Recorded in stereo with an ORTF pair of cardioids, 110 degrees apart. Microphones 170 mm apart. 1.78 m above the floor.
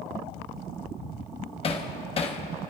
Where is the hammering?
35° left, 1.0 m.